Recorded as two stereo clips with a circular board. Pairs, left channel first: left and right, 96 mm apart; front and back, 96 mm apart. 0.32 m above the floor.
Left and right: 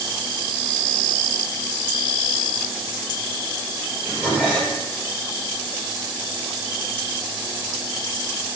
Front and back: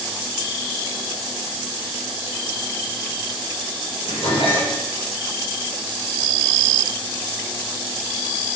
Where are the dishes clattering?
10° right, 5 m.